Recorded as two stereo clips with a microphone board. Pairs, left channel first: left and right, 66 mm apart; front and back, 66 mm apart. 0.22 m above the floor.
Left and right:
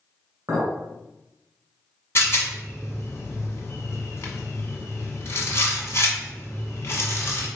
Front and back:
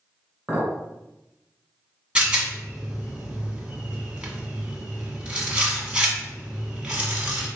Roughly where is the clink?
Behind right.